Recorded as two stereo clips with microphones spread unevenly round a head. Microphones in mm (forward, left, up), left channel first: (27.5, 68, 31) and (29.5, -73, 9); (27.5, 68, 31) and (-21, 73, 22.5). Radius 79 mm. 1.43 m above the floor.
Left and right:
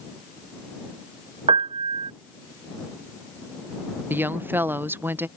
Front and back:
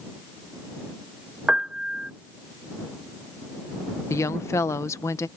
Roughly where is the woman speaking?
Ahead.